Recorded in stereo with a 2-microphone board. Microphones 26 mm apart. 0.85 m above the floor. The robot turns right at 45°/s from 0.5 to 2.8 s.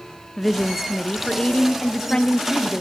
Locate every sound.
0.4 s a woman speaking: 10° left (ahead or behind), 0.6 m; by 2.8 s 25° left (ahead or behind), 0.6 m